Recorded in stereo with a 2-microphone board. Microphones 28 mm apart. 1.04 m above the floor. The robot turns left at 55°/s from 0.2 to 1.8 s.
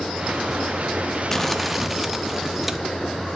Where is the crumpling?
20° left (ahead or behind), 0.9 m; by 2.8 s 5° right (ahead or behind), 0.9 m.